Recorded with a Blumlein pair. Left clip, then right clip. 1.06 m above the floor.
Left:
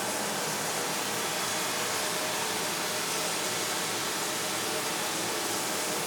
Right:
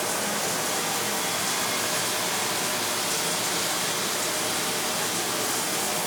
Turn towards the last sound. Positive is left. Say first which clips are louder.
# right 4 dB
turn(degrees=-65)